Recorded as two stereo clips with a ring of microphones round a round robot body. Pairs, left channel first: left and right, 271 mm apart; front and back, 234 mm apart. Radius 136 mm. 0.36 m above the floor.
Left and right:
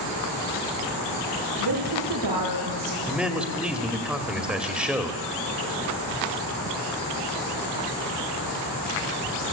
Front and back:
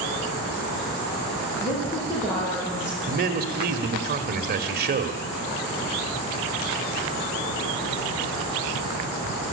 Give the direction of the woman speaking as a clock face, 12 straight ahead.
3 o'clock.